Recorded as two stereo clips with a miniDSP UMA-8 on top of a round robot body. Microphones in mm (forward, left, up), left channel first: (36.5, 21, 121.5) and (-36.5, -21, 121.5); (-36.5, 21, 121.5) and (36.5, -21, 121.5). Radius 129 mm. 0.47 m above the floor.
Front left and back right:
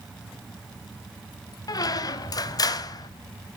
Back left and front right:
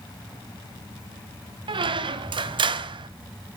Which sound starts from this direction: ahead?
A squeak, at 1.7 s.